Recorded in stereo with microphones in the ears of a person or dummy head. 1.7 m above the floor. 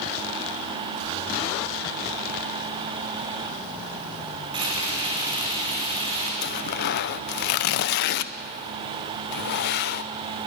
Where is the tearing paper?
55° left (ahead or behind), 0.7 m.